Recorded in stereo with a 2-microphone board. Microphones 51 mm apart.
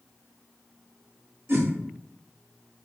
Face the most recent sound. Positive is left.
turn(degrees=-45)  # may be behind; listen again after turning